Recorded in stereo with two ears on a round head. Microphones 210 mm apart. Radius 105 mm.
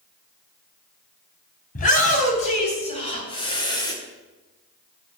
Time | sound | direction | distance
1.8 | a shout | 40° left (ahead or behind) | 3.5 m